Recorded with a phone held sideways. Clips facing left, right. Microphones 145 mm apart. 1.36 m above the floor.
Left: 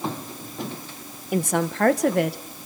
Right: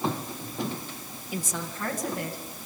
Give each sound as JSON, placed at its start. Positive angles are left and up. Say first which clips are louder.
{"t": 1.3, "sound": "a woman speaking", "louder": "left 11 dB", "side_deg": 60, "distance_m": 1.4}